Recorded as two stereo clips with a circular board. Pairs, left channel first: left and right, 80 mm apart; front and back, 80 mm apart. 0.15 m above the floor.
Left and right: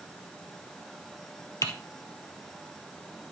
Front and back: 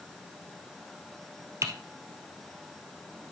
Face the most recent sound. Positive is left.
turn(degrees=135)